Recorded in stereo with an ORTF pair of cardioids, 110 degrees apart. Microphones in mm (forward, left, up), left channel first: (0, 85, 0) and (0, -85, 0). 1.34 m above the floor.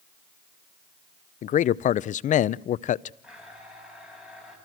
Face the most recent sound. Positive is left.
turn(degrees=-5)